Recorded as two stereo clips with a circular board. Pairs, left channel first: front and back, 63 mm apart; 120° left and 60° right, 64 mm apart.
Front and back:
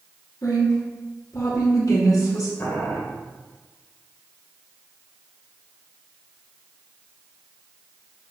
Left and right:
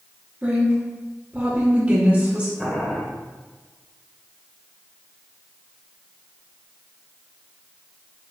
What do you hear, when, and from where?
0.4 s a woman speaking: 5° left, 2.5 m
2.6 s boiling: 35° left, 1.9 m